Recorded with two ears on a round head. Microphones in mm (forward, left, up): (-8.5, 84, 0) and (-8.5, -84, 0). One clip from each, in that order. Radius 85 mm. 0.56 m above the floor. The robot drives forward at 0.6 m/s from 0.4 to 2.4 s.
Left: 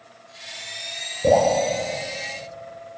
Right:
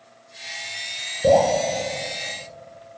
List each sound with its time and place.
1.2 s dripping: 25° right (ahead or behind), 6 m